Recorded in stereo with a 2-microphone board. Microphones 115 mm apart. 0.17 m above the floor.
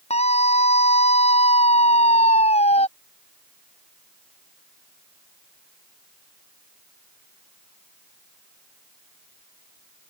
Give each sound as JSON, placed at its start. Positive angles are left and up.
{"t": 0.1, "sound": "a scream", "side_deg": 65}